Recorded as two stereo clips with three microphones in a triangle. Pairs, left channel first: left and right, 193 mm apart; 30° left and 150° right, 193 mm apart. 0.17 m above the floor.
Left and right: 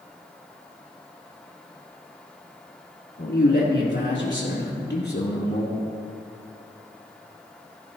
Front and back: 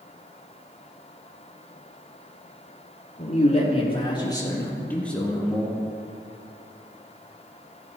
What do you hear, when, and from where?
3.2 s a man speaking: 75° left, 5 m; by 5.8 s 125° left, 4.5 m